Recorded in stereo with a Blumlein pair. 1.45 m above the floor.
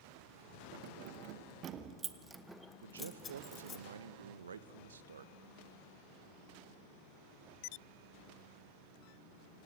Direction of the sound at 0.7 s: 50° right.